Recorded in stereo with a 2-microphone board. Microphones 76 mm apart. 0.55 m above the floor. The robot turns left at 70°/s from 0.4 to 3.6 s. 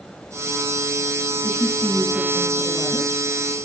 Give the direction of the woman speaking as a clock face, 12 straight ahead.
8 o'clock.